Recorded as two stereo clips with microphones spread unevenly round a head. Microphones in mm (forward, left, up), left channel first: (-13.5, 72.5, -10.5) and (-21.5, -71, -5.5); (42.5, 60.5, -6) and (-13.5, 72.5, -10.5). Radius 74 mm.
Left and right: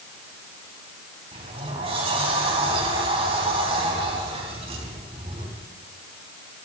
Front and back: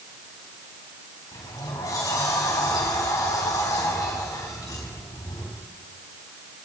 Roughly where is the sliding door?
Ahead right.